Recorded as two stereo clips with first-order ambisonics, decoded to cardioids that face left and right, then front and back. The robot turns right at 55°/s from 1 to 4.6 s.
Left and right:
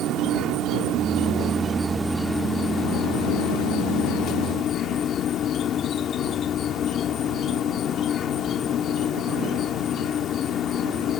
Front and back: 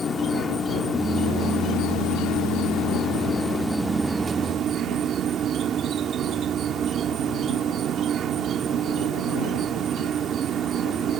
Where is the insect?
65° right; by 11.2 s 135° left.